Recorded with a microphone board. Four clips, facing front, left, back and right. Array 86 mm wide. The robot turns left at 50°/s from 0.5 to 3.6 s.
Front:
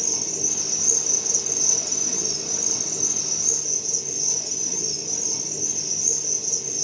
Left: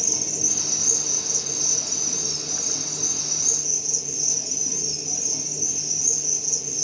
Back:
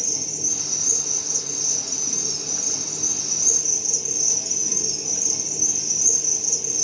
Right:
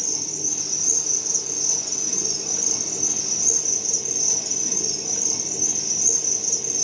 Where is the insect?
50° left, 0.7 m; by 6.8 s 105° right, 0.7 m.